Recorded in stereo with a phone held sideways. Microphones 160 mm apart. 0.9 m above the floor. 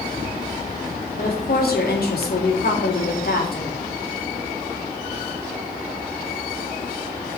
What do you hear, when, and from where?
1.2 s a woman speaking: 75° left (ahead or behind), 3 m